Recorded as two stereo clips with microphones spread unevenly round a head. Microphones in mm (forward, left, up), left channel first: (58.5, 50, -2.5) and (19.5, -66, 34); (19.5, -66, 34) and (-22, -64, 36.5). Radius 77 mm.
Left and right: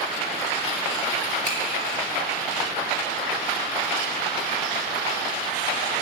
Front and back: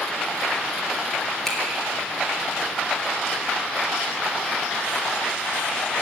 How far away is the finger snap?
About 3.5 m.